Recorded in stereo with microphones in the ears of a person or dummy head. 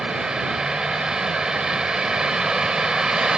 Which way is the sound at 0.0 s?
Centre (ahead or behind).